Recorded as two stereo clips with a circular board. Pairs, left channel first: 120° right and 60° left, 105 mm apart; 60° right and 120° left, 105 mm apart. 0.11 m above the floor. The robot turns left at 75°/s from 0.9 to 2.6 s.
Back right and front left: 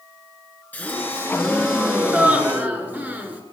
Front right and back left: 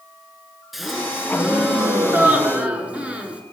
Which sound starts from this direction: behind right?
A gasp, at 0.7 s.